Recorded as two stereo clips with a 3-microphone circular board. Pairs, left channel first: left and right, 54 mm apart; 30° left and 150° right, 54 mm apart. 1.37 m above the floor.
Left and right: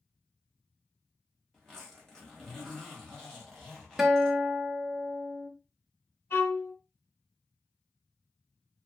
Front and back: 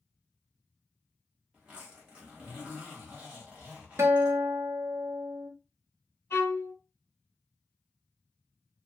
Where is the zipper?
160° left, 1.3 m.